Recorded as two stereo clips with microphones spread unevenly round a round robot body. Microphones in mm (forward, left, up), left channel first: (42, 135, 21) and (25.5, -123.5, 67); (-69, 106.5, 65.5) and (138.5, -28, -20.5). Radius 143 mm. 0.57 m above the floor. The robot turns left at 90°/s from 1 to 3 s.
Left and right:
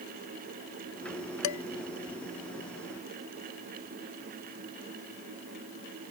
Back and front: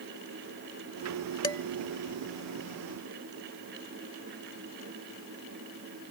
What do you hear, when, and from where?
1.4 s dishes clattering: 75° left; by 1.6 s 60° left